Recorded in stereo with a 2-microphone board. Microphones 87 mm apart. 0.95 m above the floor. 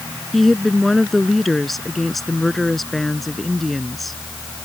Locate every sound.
0.3 s a woman speaking: centre (ahead or behind)